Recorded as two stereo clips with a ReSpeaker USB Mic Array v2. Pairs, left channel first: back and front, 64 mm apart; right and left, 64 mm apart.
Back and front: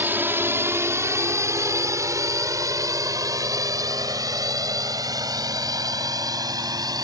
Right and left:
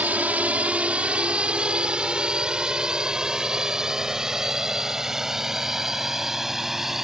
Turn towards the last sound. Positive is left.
turn(degrees=5)